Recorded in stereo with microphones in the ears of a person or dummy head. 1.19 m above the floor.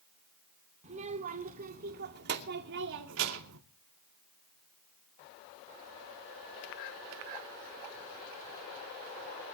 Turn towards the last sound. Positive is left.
turn(degrees=-80)